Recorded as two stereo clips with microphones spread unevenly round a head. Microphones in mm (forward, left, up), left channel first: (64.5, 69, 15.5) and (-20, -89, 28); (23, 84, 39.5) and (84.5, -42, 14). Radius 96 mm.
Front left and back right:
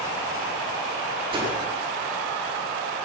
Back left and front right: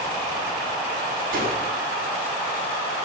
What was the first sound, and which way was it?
A whoosh, 60° right.